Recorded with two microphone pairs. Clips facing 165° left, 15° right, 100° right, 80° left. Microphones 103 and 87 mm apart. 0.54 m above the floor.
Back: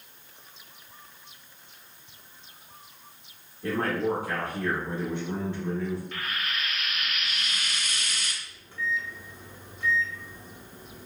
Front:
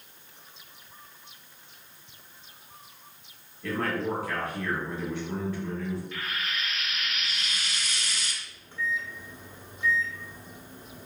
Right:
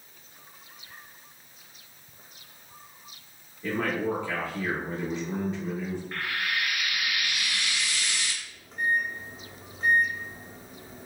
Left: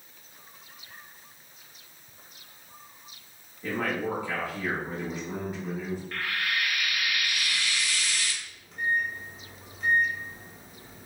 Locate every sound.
3.6 s a man speaking: 150° left, 0.6 m
6.1 s frying: 170° right, 0.5 m
8.4 s a microwave: 75° right, 0.6 m